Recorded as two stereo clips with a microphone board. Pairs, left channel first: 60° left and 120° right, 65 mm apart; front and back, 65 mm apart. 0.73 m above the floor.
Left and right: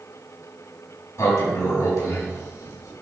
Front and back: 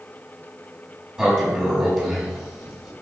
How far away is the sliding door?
About 4.5 m.